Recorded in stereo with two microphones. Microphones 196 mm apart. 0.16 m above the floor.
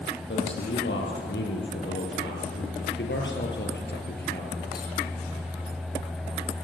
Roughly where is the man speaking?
Left.